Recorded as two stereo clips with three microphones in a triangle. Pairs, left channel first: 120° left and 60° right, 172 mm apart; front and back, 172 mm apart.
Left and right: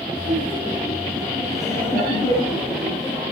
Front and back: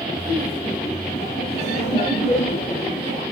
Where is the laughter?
55° left, 5 m; by 3.2 s 50° left, 7.5 m.